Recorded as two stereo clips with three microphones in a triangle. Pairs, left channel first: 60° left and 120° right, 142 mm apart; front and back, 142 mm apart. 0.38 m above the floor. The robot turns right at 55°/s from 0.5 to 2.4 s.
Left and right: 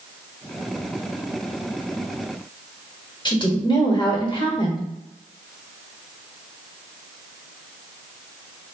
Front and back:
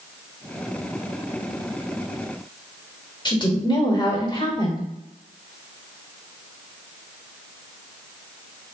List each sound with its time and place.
3.2 s a woman speaking: 30° left, 1.1 m